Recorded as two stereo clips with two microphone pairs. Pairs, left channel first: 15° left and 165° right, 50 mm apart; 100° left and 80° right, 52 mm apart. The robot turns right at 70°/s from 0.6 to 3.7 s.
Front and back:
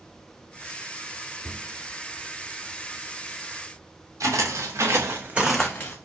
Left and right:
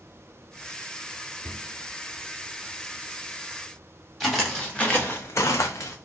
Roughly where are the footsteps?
Behind.